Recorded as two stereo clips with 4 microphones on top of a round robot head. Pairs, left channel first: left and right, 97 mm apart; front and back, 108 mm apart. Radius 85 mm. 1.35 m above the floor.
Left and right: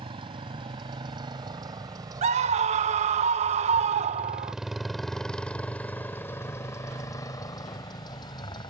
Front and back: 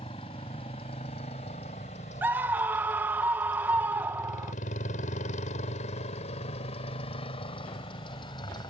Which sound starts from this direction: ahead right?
A motorcycle, at 0.0 s.